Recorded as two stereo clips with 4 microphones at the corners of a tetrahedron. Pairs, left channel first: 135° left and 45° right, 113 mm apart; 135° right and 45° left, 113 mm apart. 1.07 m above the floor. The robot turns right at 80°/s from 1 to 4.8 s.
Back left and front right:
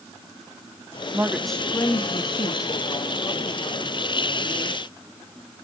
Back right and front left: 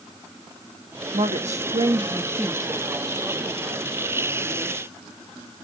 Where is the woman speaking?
20° left, 1.7 m; by 2.7 s 150° left, 1.7 m.